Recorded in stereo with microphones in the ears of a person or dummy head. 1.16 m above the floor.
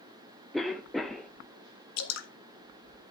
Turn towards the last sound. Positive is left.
turn(degrees=70)  # may be behind; listen again after turning